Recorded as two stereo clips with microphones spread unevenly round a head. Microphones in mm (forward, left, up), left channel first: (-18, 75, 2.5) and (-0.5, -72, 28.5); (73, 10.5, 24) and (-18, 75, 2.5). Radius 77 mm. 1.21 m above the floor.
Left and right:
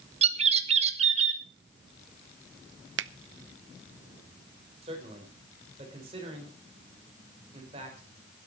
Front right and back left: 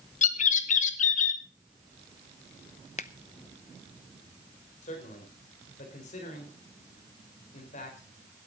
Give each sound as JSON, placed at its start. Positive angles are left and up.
{"t": 0.2, "sound": "a bird", "azimuth_deg": -30, "distance_m": 1.3}
{"t": 3.0, "sound": "a finger snap", "azimuth_deg": -85, "distance_m": 0.7}
{"t": 4.8, "sound": "a man speaking", "azimuth_deg": -30, "distance_m": 5.0}